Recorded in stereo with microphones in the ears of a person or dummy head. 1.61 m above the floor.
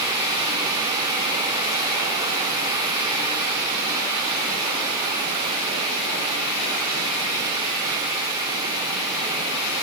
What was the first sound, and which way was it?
Only background noise.